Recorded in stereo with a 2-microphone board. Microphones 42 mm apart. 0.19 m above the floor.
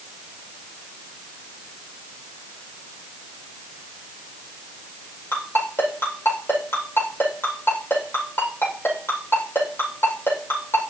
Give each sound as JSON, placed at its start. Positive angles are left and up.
{"t": 5.3, "sound": "a ringtone", "side_deg": 65, "distance_m": 5.5}